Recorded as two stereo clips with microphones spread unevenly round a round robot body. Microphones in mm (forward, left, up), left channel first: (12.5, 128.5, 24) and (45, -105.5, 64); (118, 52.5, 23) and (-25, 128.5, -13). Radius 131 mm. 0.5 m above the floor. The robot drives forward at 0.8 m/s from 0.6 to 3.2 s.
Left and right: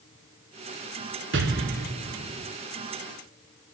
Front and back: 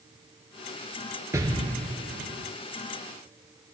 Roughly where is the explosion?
Behind right.